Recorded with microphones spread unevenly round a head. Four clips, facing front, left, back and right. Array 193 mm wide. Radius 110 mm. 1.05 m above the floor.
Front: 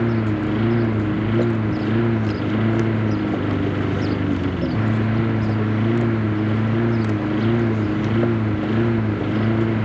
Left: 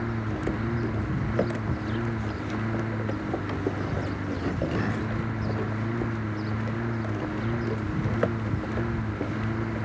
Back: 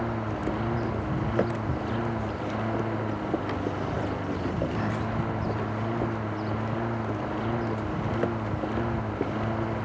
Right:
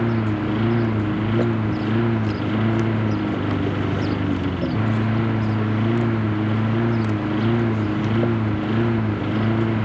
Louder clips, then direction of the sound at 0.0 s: Right 8 dB, front 9 dB; 55° right.